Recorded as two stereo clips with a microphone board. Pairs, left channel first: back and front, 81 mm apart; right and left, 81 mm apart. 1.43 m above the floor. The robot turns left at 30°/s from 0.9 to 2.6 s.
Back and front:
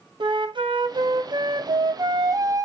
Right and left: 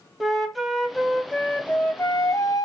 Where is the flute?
Straight ahead, 0.6 m; by 2.7 s 50° right, 0.6 m.